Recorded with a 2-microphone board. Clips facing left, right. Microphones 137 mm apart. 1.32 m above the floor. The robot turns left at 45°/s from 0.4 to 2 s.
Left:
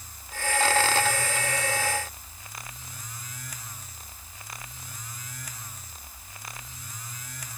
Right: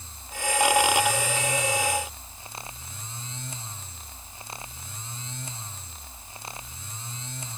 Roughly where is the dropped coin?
No dropped coin in this recording.